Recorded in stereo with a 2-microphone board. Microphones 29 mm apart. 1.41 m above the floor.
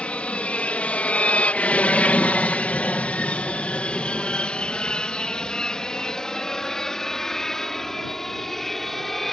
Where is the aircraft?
45° left (ahead or behind); by 9.3 s 10° left (ahead or behind).